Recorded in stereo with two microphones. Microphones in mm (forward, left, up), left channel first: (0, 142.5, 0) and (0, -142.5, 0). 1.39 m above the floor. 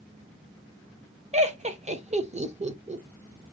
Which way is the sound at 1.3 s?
25° right (ahead or behind).